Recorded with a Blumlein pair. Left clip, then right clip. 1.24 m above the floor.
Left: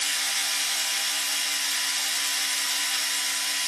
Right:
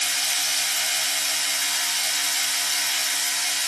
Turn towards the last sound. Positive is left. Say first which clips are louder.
# right 2 dB
turn(degrees=-30)